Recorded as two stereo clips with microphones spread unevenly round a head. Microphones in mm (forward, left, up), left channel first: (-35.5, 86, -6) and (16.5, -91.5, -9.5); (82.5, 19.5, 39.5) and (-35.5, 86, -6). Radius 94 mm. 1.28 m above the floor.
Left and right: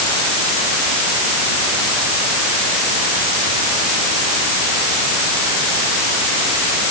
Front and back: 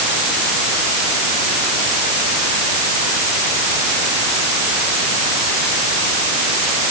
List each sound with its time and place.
Only background noise.